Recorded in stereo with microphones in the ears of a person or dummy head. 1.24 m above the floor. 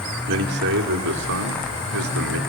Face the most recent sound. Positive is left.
turn(degrees=-85)